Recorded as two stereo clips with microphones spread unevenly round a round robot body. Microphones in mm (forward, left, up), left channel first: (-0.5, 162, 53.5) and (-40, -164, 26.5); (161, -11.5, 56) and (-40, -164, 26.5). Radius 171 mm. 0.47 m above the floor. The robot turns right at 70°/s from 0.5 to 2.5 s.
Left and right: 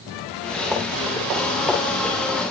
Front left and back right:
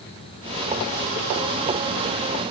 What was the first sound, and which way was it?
Only background noise.